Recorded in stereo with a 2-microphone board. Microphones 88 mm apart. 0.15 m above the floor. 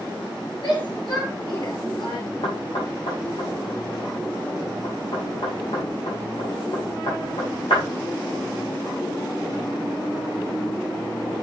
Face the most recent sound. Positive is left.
turn(degrees=75)  # may be behind; listen again after turning